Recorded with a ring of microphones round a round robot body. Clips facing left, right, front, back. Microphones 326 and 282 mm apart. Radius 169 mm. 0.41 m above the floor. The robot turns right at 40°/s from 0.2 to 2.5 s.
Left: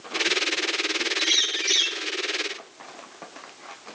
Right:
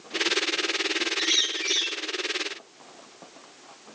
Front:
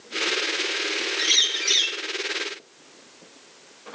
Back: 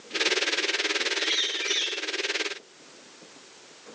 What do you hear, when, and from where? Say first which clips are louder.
1.2 s a bird: even, even; 10° right, 1.4 m; by 2.0 s 25° left, 1.4 m